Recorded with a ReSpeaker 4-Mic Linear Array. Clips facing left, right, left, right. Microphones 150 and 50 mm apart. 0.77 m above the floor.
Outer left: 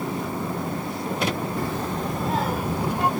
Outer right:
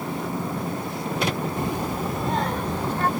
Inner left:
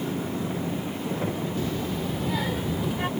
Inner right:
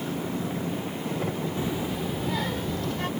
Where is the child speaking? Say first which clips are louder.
Outer right 1 dB, even; 20° right (ahead or behind); by 3.1 s 15° left (ahead or behind).